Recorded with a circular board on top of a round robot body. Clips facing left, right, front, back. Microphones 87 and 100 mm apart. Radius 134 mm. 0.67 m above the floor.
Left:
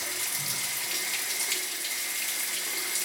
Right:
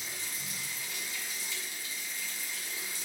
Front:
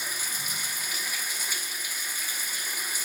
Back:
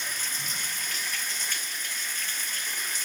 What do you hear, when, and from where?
0.0 s running water: 80° left, 0.9 m